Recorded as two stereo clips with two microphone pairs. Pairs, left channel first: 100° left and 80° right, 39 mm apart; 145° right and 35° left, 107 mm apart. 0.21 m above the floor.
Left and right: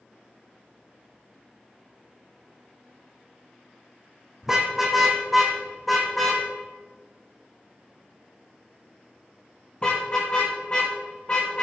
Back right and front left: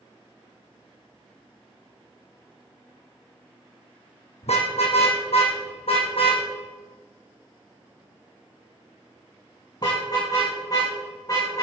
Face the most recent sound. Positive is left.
turn(degrees=160)